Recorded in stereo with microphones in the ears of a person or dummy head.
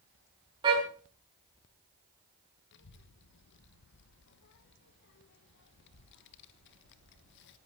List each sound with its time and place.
0.6 s a car horn: 25° right (ahead or behind), 5.5 m
2.7 s a child speaking: 60° left (ahead or behind), 1.5 m